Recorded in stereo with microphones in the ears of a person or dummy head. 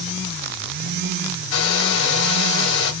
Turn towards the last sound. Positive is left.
turn(degrees=60)  # may be behind; listen again after turning